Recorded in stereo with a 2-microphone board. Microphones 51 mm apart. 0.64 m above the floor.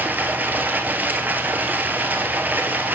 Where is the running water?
35° right (ahead or behind), 1.3 m.